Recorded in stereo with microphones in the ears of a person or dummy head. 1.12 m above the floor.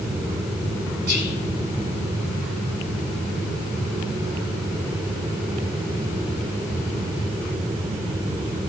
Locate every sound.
1.1 s whispering: 60° right (ahead or behind), 3 m